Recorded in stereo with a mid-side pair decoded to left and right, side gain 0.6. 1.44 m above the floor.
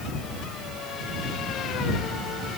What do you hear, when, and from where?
Only background noise.